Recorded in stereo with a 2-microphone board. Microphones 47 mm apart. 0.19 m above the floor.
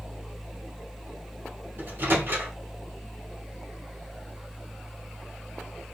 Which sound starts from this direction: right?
A microwave, at 1.8 s.